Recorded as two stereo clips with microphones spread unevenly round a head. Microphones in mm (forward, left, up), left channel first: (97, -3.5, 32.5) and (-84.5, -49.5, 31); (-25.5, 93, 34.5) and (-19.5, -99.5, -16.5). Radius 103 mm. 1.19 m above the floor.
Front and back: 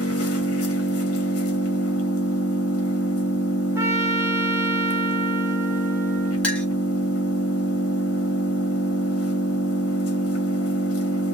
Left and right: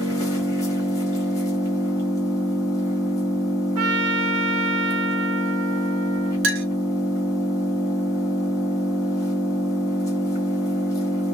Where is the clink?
65° right, 0.7 m.